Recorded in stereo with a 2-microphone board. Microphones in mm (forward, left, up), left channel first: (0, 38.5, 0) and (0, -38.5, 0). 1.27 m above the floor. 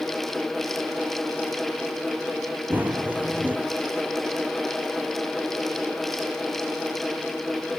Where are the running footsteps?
20° right (ahead or behind), 2 m.